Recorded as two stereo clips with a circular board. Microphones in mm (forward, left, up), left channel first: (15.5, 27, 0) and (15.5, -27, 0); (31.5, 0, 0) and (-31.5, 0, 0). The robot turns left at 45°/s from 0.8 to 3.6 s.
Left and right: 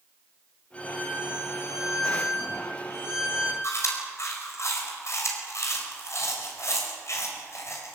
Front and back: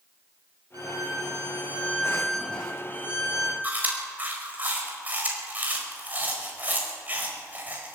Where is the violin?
155° left, 4.5 m; by 3.5 s 35° left, 4.5 m.